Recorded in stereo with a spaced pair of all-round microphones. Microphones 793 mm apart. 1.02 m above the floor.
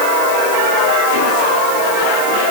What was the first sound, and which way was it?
Only background noise.